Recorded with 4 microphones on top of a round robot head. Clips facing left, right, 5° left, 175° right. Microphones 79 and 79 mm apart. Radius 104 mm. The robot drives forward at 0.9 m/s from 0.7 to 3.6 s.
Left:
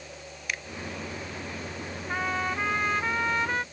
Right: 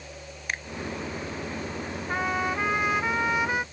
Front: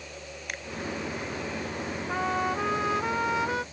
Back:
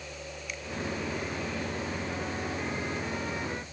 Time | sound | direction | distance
0.5 | a finger snap | 35° right | ?
2.1 | a trumpet | 10° right | ?